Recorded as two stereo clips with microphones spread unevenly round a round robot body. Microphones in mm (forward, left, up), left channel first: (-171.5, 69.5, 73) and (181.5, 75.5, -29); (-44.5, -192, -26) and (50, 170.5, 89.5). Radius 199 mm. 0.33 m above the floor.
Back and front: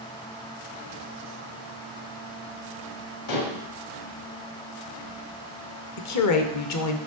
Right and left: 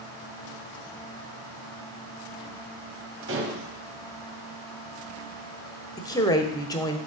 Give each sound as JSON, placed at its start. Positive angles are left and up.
{"t": 3.3, "sound": "dishes clattering", "azimuth_deg": 140, "distance_m": 1.6}
{"t": 6.0, "sound": "a woman speaking", "azimuth_deg": -140, "distance_m": 0.9}